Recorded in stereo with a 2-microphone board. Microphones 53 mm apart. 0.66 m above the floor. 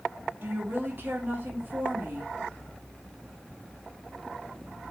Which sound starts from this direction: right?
A woman speaking, at 0.4 s.